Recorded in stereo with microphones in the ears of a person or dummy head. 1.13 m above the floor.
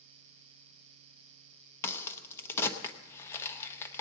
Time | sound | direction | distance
1.8 | a crack | 15° left (ahead or behind) | 0.8 m